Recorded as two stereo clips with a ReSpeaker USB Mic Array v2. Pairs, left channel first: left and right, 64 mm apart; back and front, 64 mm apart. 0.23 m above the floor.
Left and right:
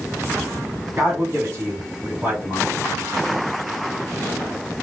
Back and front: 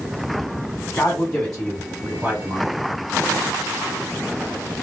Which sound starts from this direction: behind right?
A man speaking, at 1.0 s.